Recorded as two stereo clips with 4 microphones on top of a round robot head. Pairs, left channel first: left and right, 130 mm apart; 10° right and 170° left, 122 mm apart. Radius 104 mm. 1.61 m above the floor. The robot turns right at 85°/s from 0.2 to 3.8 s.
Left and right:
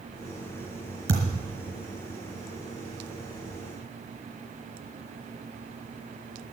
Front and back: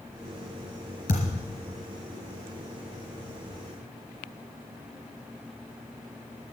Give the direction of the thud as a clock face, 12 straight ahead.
2 o'clock.